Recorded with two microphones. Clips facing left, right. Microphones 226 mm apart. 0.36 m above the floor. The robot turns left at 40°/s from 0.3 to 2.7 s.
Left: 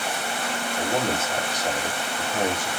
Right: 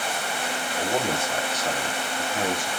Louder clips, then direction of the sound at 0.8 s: Left 1 dB; 170° right.